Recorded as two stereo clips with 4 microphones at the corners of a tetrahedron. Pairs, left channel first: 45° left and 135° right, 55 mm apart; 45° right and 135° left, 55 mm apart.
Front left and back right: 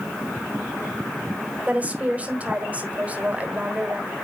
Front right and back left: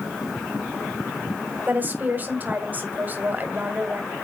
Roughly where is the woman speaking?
Behind.